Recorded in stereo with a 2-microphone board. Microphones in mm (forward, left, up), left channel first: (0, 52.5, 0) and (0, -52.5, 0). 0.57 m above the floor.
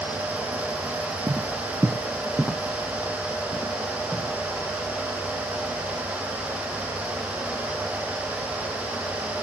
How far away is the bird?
No bird in this recording.